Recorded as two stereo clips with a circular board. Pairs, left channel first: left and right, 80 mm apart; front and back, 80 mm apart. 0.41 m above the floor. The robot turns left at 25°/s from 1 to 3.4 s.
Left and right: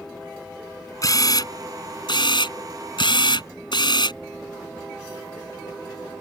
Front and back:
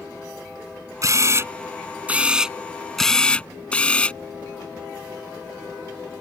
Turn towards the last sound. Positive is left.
turn(degrees=75)